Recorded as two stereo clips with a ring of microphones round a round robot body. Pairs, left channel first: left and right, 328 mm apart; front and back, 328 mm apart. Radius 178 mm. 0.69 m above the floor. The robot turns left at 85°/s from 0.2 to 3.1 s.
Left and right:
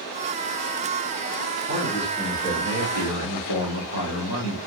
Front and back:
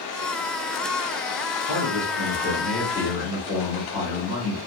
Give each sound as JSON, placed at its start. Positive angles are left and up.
{"t": 1.7, "sound": "a man speaking", "azimuth_deg": -145, "distance_m": 1.4}